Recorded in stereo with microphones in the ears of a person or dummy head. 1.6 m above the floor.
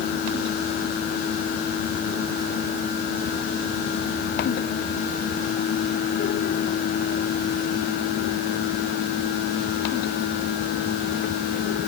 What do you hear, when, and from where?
Only background noise.